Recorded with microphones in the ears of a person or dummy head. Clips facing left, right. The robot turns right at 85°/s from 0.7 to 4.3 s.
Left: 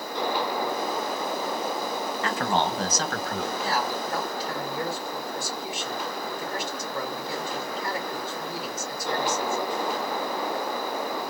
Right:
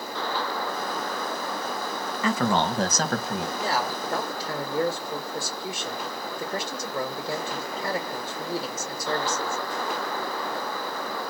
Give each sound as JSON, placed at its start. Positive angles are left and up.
{"t": 2.2, "sound": "a man speaking", "azimuth_deg": -110, "distance_m": 1.2}
{"t": 3.6, "sound": "a man speaking", "azimuth_deg": -145, "distance_m": 2.0}